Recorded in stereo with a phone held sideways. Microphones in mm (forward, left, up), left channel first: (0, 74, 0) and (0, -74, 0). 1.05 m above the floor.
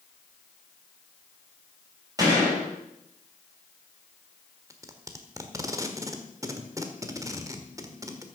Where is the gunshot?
25° right (ahead or behind), 6 m.